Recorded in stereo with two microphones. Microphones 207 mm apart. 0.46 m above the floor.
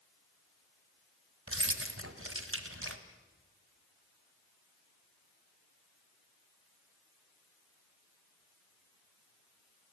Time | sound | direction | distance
1.5 | keys jangling | 75° right (ahead or behind) | 1.7 m